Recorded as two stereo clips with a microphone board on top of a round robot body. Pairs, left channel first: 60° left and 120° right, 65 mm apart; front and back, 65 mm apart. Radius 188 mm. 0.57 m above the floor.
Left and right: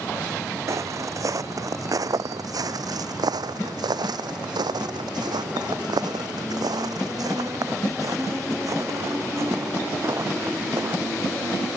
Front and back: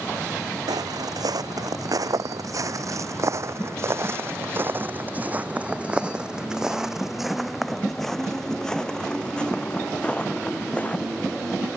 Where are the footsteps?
160° right; by 11.0 s 70° right.